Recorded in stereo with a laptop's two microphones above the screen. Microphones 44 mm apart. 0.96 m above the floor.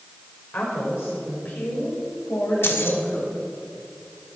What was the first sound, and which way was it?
A woman speaking, 50° left (ahead or behind).